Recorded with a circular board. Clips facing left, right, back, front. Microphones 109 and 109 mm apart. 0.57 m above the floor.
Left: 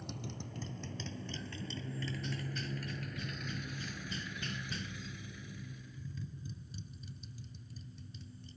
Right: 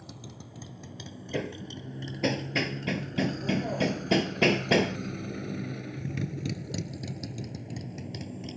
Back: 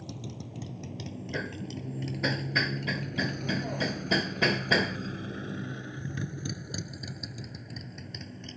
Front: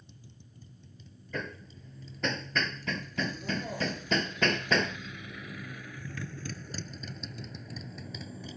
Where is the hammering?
95° right.